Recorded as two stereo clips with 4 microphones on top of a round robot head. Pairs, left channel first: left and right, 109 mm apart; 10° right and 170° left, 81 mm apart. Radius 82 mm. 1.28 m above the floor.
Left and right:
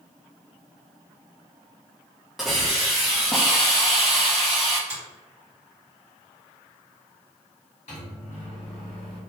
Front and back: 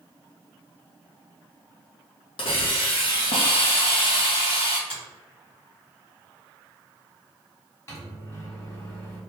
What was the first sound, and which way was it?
A hiss, straight ahead.